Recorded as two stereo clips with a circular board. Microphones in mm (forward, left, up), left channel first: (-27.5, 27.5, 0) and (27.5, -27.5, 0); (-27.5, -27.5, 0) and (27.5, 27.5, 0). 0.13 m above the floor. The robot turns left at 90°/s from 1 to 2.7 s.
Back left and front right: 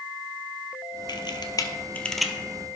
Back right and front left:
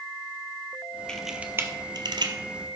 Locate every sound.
1.1 s a camera shutter: 145° left, 0.8 m; by 2.3 s 35° left, 0.8 m